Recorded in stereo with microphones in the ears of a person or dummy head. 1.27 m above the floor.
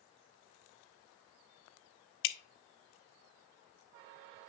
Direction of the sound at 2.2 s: 65° left (ahead or behind).